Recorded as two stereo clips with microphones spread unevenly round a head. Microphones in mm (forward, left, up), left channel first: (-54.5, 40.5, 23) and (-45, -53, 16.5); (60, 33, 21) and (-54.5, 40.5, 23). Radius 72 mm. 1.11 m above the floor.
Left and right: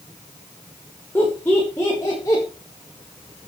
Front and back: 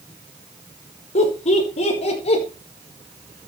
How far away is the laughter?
About 5 m.